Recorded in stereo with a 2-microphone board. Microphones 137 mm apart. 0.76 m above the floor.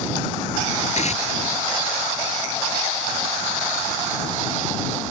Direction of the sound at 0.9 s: 55° left (ahead or behind).